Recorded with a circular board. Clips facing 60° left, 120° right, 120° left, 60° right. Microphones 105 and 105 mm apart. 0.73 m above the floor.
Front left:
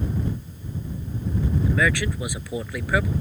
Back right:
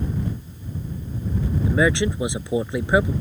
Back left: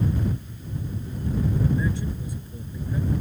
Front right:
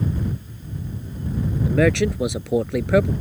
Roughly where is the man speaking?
Ahead right.